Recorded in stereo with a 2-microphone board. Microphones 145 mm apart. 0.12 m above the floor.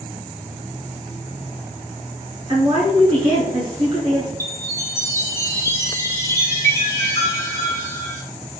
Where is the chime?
20° left (ahead or behind), 1.1 m.